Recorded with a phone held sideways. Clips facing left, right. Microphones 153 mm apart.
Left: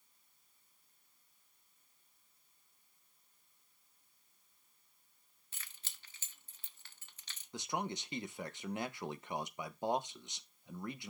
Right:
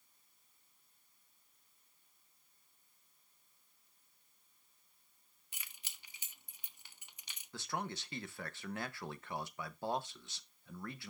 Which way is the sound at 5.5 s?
15° right (ahead or behind).